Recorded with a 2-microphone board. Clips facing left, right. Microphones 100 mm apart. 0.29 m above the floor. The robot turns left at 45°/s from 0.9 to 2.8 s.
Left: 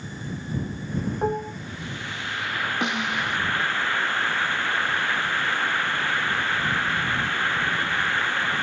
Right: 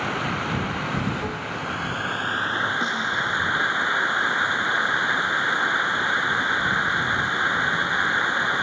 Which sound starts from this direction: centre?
A snare drum, at 2.8 s.